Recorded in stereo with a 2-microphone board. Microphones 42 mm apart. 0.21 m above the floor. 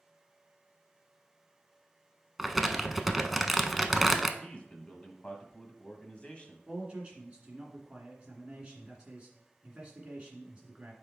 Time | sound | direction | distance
2.4 | crumpling | centre (ahead or behind) | 0.5 m
4.4 | a man speaking | 25° left (ahead or behind) | 1.0 m
6.7 | a man speaking | 25° right (ahead or behind) | 2.0 m